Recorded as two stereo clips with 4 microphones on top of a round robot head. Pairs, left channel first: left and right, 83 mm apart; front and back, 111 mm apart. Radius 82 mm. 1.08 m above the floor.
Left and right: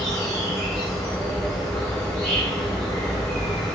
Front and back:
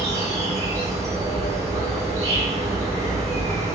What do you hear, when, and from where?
0.0 s an insect: 150° left, 1.7 m